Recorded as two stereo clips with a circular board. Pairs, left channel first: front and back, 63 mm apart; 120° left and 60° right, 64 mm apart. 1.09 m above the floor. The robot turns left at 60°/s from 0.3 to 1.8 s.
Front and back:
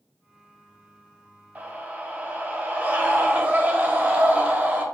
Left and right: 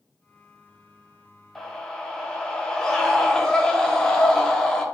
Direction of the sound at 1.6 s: 165° right.